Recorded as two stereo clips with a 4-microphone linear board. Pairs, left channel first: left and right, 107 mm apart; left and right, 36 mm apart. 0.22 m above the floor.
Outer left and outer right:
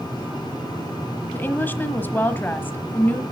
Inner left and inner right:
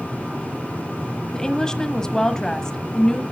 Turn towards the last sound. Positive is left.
turn(degrees=15)  # may be behind; listen again after turning